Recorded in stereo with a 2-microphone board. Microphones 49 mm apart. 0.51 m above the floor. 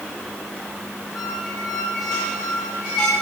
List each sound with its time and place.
1.1 s a squeak: 15° left (ahead or behind), 9 m